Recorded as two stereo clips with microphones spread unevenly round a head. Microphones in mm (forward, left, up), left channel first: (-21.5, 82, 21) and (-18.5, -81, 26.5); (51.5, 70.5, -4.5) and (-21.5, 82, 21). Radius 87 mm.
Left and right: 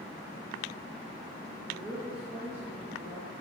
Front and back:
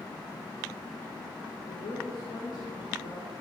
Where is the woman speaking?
10° right, 1.9 m.